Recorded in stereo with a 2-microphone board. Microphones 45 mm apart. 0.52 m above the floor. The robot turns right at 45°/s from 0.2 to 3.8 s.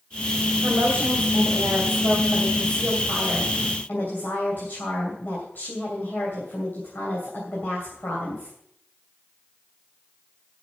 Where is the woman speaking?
90° right, 3 m; by 8.6 s 50° left, 3 m.